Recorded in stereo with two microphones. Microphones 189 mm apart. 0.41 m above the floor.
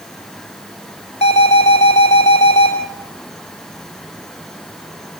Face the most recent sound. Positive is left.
turn(degrees=35)  # may be behind; listen again after turning